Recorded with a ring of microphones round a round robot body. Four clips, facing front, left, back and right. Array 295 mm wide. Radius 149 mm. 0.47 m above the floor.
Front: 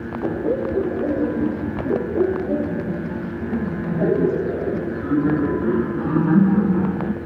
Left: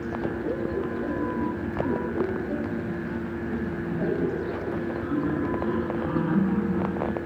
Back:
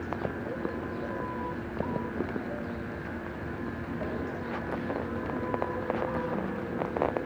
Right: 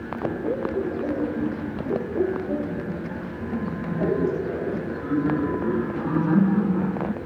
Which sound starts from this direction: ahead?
Laughter, at 0.2 s.